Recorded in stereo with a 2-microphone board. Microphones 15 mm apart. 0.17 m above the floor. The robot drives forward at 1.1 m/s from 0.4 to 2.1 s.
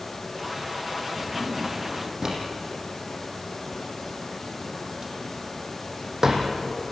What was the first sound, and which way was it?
A drawer, 35° right (ahead or behind).